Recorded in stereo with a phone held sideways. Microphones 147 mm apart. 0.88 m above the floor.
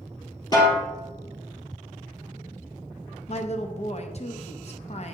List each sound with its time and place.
0.5 s a snare drum: 30° left (ahead or behind), 3.5 m
3.3 s a woman speaking: 50° left (ahead or behind), 0.7 m